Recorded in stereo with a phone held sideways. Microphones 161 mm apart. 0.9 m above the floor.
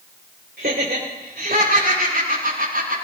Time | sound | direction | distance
0.6 | laughter | 80° right | 3 m